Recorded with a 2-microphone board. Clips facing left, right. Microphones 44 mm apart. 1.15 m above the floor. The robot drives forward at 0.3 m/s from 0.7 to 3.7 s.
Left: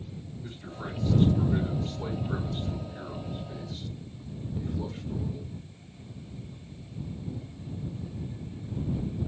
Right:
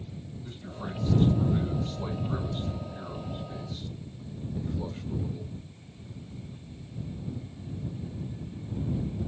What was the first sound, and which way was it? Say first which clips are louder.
A man speaking: even; 65° left (ahead or behind).